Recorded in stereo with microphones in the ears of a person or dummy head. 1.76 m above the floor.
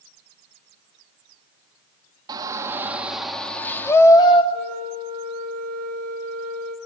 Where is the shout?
20° right (ahead or behind), 2.5 m; by 4.4 s 20° left (ahead or behind), 3.5 m.